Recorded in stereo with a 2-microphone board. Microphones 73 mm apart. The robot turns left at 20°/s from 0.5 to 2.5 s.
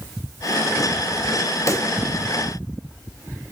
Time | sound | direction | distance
1.7 | a pop | 45° left (ahead or behind) | 1.5 m